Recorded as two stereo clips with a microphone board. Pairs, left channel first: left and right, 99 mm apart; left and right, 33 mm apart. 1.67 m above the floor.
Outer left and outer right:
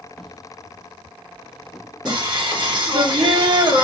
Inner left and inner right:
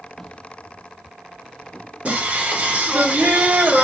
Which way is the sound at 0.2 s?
5° left (ahead or behind).